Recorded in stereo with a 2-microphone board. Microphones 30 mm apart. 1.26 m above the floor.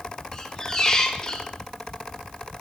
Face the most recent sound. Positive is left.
turn(degrees=20)  # may be behind; listen again after turning